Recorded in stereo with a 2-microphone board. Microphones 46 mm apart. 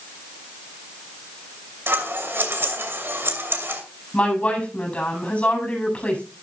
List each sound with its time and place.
1.9 s scissors: 60° right (ahead or behind), 2.5 m
4.1 s a woman speaking: 30° left (ahead or behind), 8.5 m